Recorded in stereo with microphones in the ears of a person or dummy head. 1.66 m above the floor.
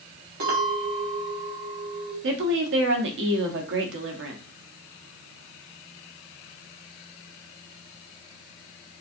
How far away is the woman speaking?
About 1.0 m.